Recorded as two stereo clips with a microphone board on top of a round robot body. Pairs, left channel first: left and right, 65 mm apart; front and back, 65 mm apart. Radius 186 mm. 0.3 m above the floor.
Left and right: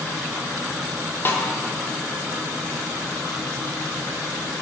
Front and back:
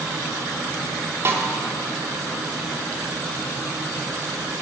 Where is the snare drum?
140° left, 1.8 m.